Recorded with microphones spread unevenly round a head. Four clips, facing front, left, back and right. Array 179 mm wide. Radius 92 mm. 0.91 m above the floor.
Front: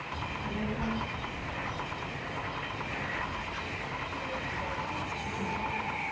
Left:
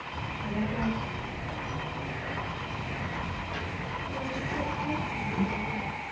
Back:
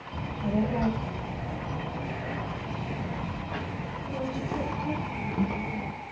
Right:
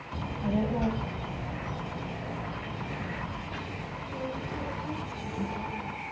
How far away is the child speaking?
About 3.5 m.